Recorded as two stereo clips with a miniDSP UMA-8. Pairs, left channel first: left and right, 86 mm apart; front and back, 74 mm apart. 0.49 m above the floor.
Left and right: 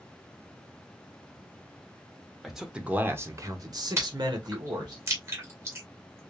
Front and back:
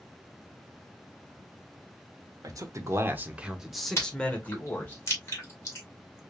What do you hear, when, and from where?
2.4 s a man speaking: straight behind, 1.0 m; by 5.0 s 60° right, 1.7 m
4.0 s chewing: 40° right, 2 m